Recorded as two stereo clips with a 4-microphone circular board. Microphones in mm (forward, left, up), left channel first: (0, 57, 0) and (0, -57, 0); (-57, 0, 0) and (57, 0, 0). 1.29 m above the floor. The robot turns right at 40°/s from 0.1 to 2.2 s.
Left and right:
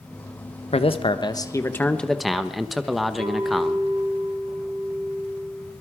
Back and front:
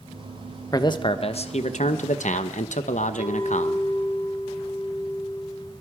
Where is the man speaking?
120° left, 1.0 m; by 3.9 s straight behind, 1.0 m.